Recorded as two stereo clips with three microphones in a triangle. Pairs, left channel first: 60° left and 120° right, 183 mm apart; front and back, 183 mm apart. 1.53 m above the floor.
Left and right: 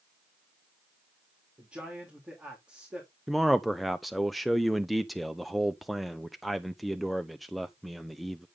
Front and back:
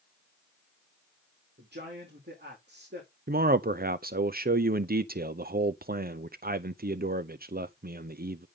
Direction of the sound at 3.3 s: 150° left.